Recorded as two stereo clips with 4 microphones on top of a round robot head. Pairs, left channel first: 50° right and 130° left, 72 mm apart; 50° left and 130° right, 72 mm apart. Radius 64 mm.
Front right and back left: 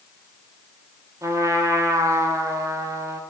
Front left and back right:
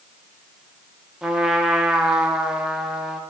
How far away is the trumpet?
About 0.9 m.